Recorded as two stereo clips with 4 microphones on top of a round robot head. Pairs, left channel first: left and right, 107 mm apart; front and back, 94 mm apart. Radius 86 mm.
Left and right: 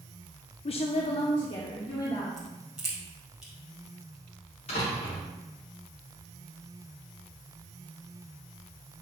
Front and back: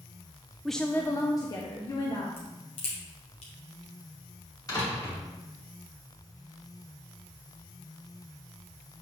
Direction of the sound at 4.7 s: 50° left.